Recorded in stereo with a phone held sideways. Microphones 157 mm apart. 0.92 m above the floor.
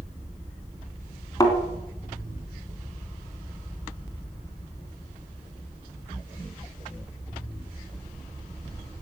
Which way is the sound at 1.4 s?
25° left (ahead or behind).